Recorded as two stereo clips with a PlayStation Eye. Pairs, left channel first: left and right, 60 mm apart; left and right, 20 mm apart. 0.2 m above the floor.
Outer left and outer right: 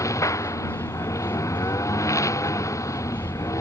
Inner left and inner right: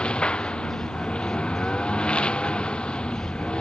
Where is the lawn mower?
60° left (ahead or behind).